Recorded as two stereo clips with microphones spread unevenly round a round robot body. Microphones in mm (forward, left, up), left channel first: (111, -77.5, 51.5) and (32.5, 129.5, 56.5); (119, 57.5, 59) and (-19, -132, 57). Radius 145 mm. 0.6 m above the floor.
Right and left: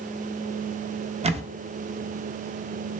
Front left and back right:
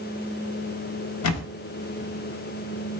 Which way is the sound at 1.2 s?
45° left.